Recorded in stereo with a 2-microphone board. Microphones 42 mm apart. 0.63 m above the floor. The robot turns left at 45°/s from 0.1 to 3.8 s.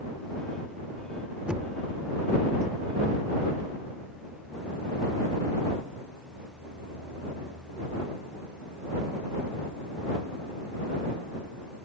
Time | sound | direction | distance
1.5 | knocking | 25° right (ahead or behind) | ?